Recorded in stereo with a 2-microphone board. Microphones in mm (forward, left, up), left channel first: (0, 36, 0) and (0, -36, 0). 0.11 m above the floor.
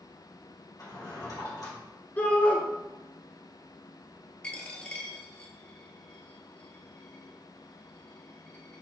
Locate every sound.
0.8 s a drawer: 50° left (ahead or behind), 2 m
2.2 s a shout: 20° left (ahead or behind), 1.2 m
4.4 s a dropped coin: 15° left (ahead or behind), 0.8 m